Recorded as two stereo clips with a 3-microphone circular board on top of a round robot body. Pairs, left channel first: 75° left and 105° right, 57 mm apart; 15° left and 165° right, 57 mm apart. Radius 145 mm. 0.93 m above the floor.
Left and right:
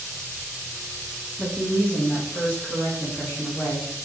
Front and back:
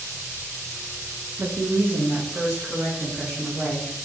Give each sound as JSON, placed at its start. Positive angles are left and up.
{"t": 1.4, "sound": "a woman speaking", "azimuth_deg": 160, "distance_m": 0.6}